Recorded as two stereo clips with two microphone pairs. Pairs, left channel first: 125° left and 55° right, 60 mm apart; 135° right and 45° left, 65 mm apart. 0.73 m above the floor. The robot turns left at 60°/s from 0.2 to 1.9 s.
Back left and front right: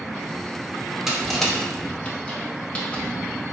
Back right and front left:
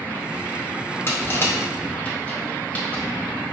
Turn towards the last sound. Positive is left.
turn(degrees=175)